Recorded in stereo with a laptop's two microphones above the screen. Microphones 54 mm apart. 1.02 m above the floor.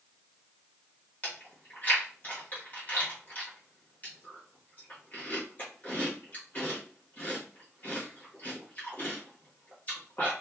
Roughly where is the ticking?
I don't hear ticking.